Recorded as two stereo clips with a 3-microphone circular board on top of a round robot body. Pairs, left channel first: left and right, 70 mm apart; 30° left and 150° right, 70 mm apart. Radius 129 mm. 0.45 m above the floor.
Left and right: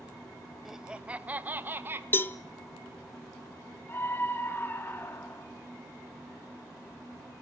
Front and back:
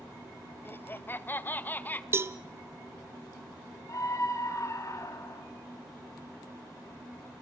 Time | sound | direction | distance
0.7 | laughter | 5° right | 0.9 m
2.1 | a cowbell | 150° left | 0.5 m
3.9 | a scream | 40° left | 1.9 m